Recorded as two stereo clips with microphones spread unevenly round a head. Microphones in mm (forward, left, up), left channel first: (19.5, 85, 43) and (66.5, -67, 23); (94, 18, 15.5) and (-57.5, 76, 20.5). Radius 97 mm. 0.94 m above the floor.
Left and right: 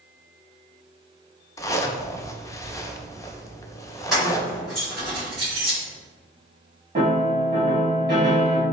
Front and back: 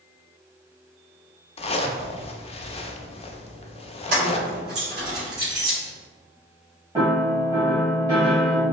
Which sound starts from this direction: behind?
Keys jangling, at 4.1 s.